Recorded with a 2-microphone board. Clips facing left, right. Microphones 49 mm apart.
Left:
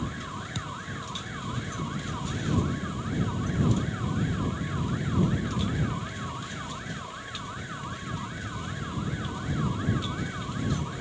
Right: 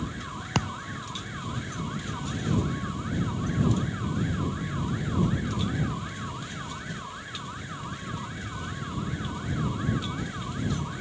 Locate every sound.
0.6 s a thud: 65° right (ahead or behind)